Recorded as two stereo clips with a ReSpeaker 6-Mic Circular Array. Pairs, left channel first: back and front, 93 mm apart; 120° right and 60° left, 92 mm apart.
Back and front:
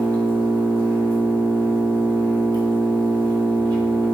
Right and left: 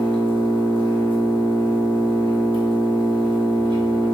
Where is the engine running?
35° left, 0.8 m.